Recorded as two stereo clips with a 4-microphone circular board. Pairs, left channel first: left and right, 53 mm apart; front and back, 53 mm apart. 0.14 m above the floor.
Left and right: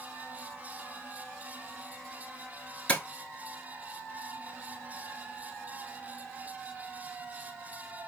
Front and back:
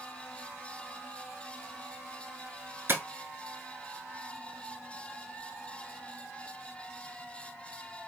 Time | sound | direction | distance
2.9 | tapping | 150° left | 0.9 m